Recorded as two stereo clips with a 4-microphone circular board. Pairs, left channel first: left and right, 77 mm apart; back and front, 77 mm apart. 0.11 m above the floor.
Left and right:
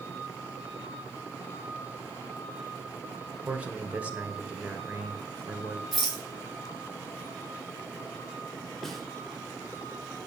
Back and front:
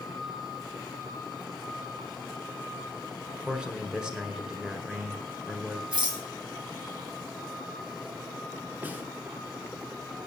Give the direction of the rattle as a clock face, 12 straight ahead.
12 o'clock.